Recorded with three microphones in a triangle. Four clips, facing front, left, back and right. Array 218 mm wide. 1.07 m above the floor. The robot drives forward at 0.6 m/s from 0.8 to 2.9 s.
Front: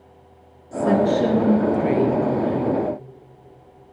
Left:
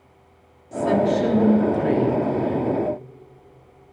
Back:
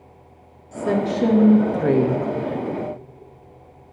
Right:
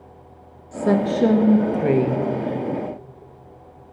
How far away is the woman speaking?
About 0.8 m.